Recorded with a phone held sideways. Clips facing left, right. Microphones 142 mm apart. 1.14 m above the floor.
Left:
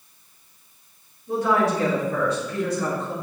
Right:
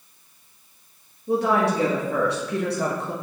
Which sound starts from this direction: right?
A woman speaking, at 1.3 s.